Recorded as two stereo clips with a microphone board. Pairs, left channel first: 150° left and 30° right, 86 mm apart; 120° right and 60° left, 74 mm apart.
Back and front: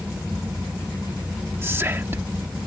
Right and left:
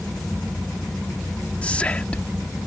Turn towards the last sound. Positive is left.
turn(degrees=-65)